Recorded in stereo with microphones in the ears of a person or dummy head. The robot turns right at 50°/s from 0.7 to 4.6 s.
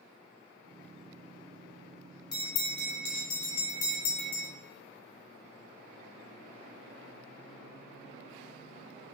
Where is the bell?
20° left, 0.8 m; by 4.5 s 130° left, 0.8 m.